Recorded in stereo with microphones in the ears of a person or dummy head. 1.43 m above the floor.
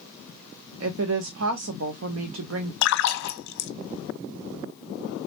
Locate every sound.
0.8 s a woman speaking: 75° right (ahead or behind), 0.5 m
2.8 s a splash: 70° left (ahead or behind), 0.6 m